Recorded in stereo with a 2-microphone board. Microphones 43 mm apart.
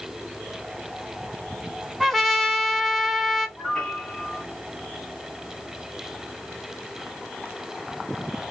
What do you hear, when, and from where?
2.0 s a trumpet: centre (ahead or behind), 0.7 m
3.6 s a piano: 20° left (ahead or behind), 1.5 m